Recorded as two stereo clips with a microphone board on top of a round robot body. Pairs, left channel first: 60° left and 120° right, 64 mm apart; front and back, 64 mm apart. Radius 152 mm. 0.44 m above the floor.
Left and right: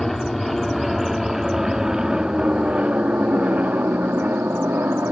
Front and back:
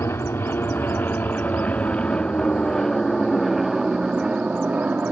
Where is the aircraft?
25° right; by 5.1 s 135° right.